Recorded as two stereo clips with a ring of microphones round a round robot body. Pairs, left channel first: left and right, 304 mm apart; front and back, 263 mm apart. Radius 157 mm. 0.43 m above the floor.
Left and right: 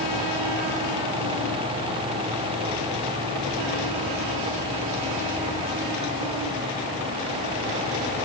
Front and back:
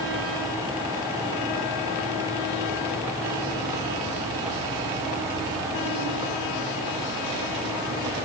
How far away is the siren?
I don't hear a siren.